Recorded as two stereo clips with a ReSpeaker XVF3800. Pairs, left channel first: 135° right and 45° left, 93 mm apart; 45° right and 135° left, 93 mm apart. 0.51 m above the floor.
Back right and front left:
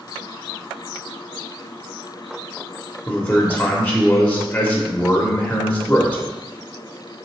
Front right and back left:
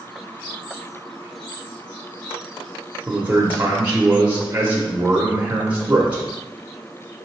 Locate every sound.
3.1 s a man speaking: 170° left, 0.7 m